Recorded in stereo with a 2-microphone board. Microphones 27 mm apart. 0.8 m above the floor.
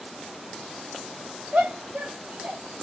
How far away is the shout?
About 2.5 m.